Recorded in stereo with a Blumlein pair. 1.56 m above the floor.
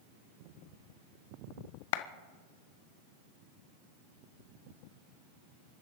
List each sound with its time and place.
1.9 s a clap: 50° left, 0.9 m